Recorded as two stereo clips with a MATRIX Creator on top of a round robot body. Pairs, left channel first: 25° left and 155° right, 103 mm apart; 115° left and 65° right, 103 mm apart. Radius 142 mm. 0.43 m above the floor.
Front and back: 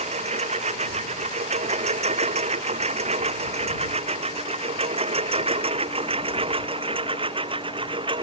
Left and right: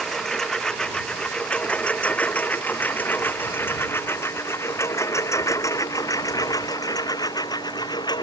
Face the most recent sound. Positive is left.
turn(degrees=160)